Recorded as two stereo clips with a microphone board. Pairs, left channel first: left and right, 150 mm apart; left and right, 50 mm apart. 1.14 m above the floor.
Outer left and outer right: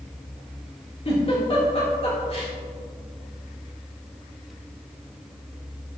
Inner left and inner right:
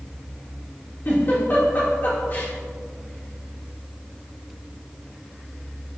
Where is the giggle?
45° left (ahead or behind), 3.5 m.